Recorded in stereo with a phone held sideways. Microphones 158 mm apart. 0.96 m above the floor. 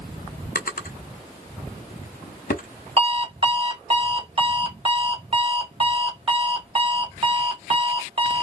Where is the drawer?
70° left (ahead or behind), 0.6 m.